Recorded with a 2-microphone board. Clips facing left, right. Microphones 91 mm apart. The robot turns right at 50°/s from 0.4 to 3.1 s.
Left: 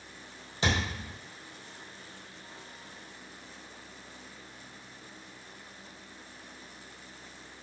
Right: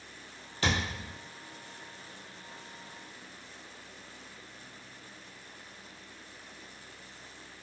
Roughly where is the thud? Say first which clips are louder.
Left 1 dB; left.